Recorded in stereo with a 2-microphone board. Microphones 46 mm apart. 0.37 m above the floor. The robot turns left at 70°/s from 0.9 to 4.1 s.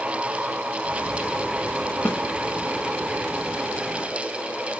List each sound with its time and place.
2.0 s a snare drum: 50° left (ahead or behind), 2 m; by 2.2 s 40° left (ahead or behind), 2 m